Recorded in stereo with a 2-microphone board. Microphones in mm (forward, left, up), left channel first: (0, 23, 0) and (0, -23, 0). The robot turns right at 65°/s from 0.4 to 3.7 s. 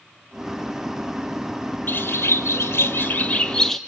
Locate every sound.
1.9 s a bird: 50° left, 1.3 m; by 3.8 s 170° left, 1.3 m